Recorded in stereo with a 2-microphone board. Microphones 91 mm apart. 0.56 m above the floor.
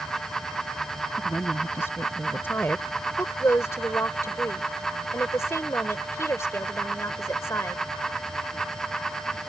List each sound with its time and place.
1.2 s a woman speaking: 30° left (ahead or behind); by 2.9 s 20° left (ahead or behind)
3.2 s a woman speaking: 30° left (ahead or behind)